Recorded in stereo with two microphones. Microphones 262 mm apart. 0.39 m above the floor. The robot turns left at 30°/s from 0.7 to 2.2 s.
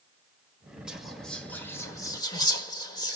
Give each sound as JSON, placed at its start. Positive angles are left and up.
{"t": 0.9, "sound": "whispering", "side_deg": -5, "distance_m": 1.1}